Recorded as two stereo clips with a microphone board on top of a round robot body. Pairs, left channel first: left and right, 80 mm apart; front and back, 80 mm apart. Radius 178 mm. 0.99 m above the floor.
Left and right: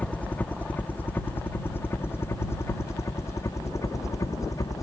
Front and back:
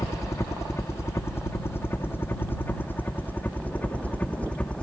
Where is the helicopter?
25° left; by 4.8 s 70° left.